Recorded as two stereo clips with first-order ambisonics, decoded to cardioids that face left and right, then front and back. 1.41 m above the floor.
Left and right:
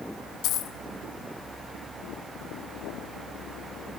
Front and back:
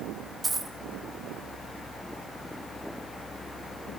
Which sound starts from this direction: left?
A dropped coin, at 0.4 s.